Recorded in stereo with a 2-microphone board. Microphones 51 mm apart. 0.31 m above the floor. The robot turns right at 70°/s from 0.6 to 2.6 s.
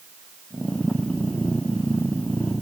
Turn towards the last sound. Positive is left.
No sound to turn to.